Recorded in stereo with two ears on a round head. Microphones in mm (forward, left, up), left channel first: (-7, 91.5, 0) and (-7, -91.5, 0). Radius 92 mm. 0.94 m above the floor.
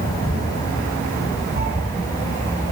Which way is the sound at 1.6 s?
50° right (ahead or behind).